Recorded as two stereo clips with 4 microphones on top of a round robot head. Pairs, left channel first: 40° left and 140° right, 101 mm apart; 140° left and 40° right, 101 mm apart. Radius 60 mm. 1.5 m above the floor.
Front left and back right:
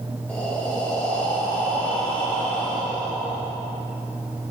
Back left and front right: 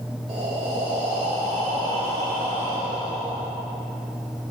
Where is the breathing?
35° right, 1.4 m.